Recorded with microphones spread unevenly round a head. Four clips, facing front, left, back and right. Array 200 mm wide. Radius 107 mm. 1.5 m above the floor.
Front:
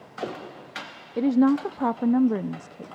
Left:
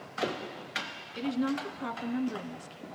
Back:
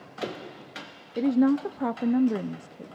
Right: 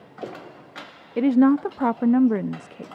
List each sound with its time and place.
1.2 s a woman speaking: 45° right, 0.5 m